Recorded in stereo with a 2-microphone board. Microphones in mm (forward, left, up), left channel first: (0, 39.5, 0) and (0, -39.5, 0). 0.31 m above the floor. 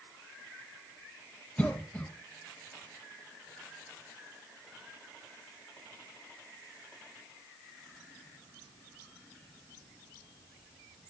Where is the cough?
20° left (ahead or behind), 1.4 m.